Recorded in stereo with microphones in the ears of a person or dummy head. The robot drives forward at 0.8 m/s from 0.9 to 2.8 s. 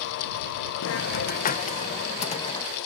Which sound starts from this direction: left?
A hiss, at 0.8 s.